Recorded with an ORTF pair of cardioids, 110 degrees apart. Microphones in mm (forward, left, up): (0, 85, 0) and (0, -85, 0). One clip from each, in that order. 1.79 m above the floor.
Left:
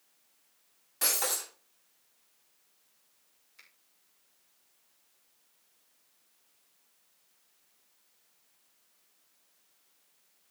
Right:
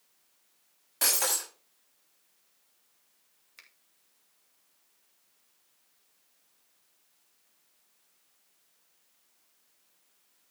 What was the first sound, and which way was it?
Breaking glass, 35° right.